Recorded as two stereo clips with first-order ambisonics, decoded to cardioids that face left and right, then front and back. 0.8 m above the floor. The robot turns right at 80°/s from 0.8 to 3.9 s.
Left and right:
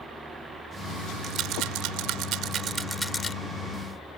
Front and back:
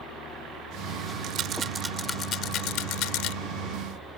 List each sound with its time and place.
1.2 s a rattle: 145° right; by 3.4 s 25° left